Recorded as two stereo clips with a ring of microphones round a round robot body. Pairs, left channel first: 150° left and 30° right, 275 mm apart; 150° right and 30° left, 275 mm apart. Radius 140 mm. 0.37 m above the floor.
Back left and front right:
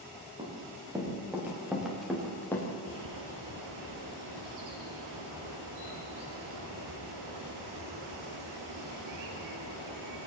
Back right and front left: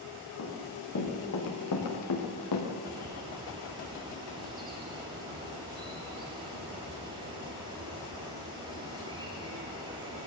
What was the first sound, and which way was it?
Running footsteps, 105° right.